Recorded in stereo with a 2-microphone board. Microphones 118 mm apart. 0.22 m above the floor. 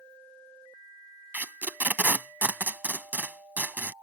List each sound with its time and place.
1.3 s tape being pulled: 15° right (ahead or behind)